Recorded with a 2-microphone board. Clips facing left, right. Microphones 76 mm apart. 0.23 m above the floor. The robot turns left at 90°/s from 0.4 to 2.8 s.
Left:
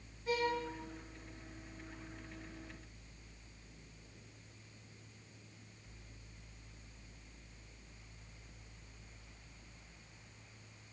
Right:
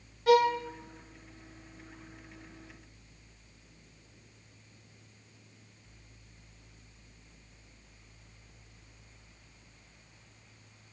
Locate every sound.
0.3 s a violin: 85° right, 2 m; by 0.6 s 75° right (ahead or behind), 2 m